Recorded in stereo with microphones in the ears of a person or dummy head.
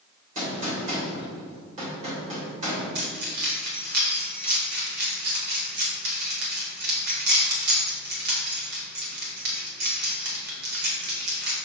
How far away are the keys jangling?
About 1.7 m.